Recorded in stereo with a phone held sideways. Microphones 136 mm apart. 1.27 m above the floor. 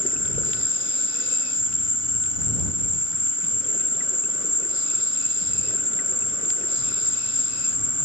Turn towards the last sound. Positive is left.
turn(degrees=40)  # may be behind; listen again after turning